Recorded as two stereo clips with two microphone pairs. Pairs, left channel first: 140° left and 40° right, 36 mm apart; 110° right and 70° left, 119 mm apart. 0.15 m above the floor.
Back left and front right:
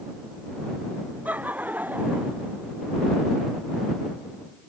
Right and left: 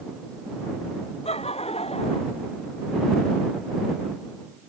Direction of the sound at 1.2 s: 85° right.